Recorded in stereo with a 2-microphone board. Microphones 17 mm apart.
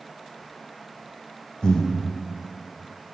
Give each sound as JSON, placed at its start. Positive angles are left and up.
{"t": 1.6, "sound": "breathing", "side_deg": 60, "distance_m": 0.6}